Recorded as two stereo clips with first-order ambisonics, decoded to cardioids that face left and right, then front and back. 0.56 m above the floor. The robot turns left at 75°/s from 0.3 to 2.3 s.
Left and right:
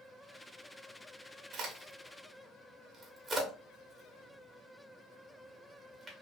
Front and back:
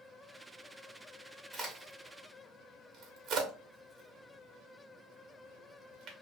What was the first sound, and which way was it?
A crack, 100° right.